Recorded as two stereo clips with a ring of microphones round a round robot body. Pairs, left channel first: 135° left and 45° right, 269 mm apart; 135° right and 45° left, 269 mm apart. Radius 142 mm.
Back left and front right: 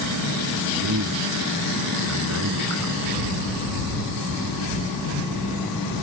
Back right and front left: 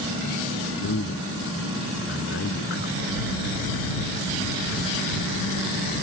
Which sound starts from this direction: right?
A man speaking, at 0.8 s.